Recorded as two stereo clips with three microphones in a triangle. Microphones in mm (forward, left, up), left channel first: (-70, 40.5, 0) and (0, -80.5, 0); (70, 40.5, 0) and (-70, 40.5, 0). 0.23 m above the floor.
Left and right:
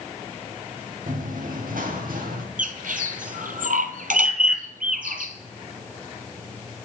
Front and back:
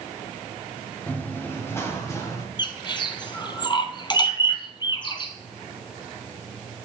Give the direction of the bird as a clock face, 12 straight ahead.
2 o'clock.